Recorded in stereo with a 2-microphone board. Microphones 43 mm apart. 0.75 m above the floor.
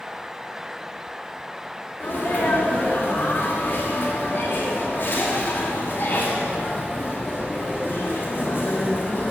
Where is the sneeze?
55° left (ahead or behind), 1.5 m.